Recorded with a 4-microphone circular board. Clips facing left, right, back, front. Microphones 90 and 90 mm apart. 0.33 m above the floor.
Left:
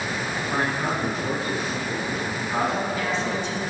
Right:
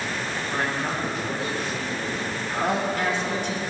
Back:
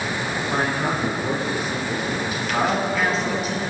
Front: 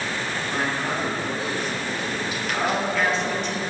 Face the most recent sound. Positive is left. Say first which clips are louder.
# right 3 dB, back 1 dB
turn(degrees=-95)